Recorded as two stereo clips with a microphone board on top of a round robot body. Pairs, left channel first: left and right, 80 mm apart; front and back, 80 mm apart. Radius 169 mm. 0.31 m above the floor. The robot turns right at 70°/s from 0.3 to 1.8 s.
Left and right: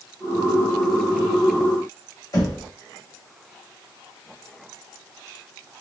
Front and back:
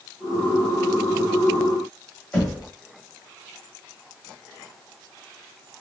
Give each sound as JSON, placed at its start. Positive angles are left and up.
{"t": 2.3, "sound": "knocking", "azimuth_deg": 70, "distance_m": 1.9}